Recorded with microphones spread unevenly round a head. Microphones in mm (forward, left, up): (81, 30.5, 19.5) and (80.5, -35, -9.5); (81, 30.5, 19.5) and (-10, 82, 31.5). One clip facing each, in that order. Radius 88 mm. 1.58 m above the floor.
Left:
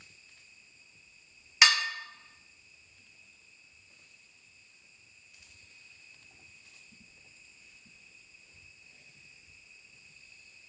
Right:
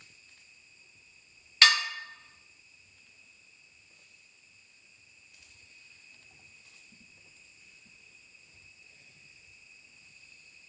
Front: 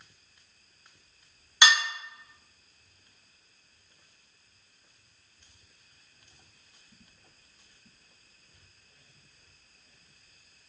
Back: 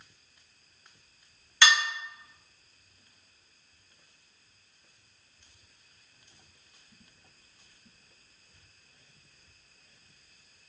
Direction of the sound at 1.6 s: 45° left.